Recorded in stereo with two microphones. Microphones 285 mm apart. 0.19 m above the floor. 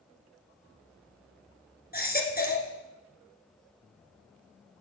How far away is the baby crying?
About 1.6 m.